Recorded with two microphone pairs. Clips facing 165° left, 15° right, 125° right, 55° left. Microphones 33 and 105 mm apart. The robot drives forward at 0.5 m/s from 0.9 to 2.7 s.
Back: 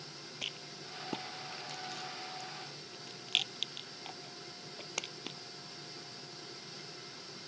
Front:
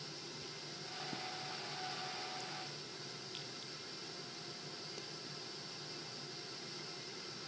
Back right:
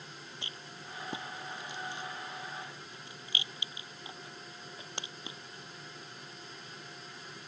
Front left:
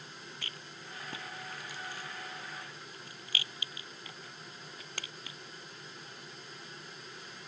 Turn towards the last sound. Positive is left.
turn(degrees=165)